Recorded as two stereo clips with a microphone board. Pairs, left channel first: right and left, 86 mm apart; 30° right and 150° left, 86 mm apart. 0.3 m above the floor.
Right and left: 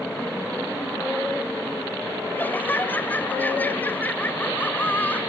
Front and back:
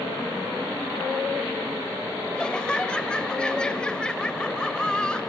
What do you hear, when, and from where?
2.3 s laughter: 90° right, 1.4 m